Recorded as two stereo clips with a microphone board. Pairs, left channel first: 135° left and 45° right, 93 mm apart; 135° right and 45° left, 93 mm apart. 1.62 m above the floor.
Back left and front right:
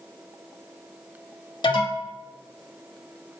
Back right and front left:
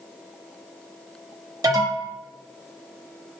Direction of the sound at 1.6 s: 100° left.